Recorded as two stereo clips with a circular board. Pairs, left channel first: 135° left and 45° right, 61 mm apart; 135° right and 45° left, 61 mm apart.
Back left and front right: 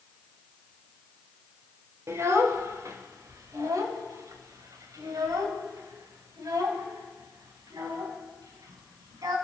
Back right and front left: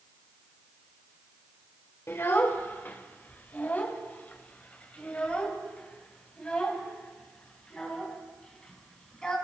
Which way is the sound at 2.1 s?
90° right.